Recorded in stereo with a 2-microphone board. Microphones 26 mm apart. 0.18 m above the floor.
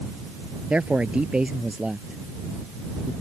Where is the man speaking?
50° right (ahead or behind); by 3.1 s 20° right (ahead or behind).